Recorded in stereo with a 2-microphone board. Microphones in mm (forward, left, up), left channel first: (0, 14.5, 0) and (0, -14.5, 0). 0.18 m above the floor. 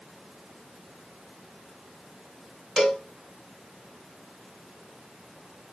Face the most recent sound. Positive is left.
turn(degrees=15)  # may be behind; listen again after turning